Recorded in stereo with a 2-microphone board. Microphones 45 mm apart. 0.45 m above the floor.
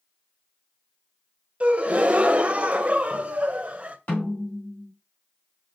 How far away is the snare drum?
About 2.5 m.